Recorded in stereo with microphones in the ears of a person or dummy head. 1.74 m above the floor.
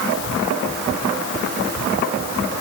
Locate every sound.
Only background noise.